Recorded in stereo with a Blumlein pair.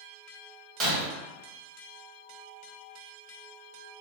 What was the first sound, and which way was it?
Breaking glass, 25° right.